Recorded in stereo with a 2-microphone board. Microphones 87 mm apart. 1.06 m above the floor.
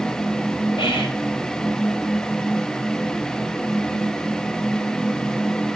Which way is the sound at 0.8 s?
80° left.